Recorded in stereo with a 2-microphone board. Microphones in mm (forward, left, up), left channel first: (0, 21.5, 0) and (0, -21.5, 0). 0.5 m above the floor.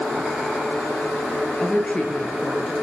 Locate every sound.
1.6 s a woman speaking: 25° left (ahead or behind), 8 m